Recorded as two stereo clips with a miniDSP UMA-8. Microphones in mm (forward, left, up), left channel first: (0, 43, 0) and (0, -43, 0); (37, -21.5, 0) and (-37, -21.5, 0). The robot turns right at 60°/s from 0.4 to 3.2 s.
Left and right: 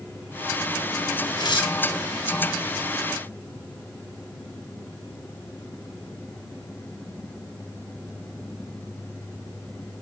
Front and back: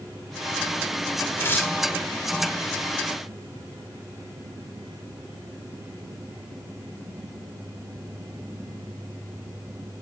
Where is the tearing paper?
55° left, 1.2 m; by 1.8 s 75° left, 1.2 m.